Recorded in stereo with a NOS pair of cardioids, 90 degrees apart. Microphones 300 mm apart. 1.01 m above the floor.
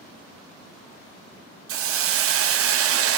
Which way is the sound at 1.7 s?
50° right.